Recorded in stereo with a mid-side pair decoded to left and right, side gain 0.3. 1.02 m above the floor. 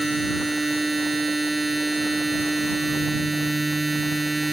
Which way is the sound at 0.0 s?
25° right.